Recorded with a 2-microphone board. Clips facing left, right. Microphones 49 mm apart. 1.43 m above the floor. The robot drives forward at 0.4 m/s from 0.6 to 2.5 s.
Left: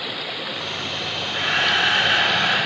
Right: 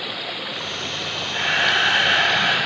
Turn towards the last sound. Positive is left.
turn(degrees=-40)  # may be behind; listen again after turning